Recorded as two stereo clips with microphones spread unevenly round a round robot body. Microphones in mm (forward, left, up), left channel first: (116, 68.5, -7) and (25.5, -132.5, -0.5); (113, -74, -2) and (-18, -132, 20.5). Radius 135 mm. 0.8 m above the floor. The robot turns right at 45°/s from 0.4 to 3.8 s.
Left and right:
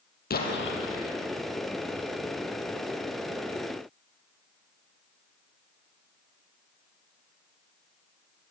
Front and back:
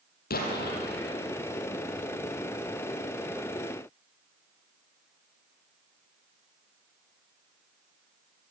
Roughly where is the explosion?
Ahead.